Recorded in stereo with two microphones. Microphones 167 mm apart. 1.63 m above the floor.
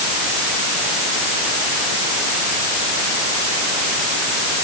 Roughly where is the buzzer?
I don't hear a buzzer.